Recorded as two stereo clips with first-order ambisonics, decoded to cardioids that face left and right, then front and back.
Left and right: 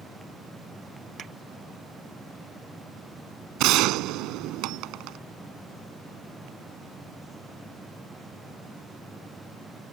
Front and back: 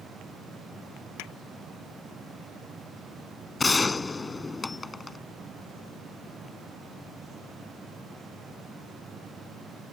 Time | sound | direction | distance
1.2 | a pop | 25° right | ?
3.6 | a gunshot | 75° right | ?